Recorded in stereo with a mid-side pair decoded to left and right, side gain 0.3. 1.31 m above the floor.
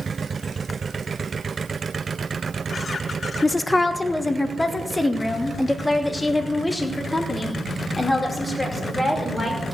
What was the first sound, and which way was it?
A woman speaking, 25° left.